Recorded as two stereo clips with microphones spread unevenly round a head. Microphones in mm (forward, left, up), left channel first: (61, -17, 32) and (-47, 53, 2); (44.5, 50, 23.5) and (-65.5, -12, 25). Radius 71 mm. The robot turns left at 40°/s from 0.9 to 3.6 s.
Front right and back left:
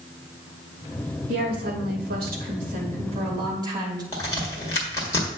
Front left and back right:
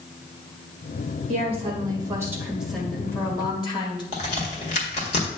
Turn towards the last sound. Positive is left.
turn(degrees=5)